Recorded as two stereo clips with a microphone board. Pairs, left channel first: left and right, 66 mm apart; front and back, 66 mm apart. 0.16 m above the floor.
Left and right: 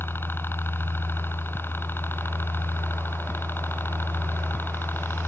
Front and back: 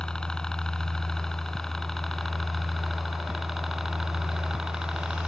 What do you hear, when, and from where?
0.0 s a helicopter: 70° left; by 5.3 s 105° left